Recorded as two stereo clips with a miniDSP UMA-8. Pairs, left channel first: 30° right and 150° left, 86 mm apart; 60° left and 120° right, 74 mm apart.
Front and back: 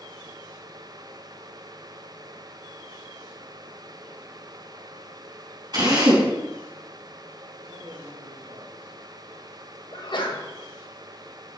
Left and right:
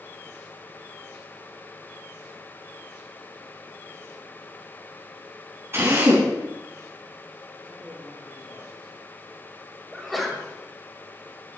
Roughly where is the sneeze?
Ahead right.